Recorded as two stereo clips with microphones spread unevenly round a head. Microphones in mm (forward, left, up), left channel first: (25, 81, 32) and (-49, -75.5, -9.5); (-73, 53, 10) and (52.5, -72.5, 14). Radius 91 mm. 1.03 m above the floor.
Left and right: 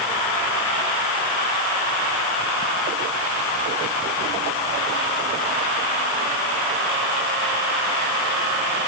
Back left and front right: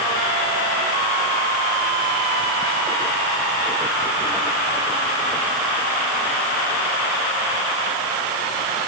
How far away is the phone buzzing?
I don't hear a phone buzzing.